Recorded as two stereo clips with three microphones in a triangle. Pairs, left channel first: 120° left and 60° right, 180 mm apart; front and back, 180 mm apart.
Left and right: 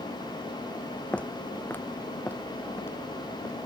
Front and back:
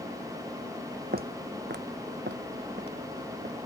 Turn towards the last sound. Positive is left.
turn(degrees=-165)